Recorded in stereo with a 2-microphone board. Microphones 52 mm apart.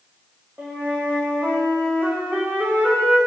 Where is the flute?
40° right (ahead or behind), 6.5 m.